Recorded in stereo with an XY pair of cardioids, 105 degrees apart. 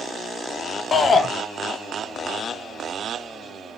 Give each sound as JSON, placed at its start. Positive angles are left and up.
{"t": 0.9, "sound": "a shout", "azimuth_deg": 40, "distance_m": 1.1}